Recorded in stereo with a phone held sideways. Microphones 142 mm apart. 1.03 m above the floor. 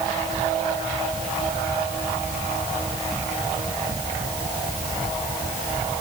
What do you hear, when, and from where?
Only background noise.